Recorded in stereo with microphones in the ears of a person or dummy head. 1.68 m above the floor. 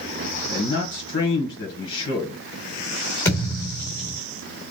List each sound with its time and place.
0.5 s a man speaking: 70° left (ahead or behind), 1.5 m
3.2 s a thud: 15° left (ahead or behind), 2.5 m